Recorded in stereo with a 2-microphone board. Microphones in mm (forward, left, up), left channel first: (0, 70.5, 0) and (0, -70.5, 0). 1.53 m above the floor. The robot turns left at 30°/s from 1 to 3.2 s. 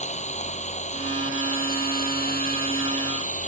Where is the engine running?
125° left; by 3.5 s 60° left.